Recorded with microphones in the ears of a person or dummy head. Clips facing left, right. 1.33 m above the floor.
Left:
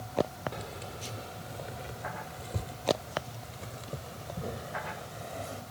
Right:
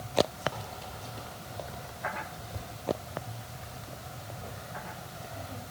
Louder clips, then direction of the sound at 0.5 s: Left 1 dB; 30° left (ahead or behind).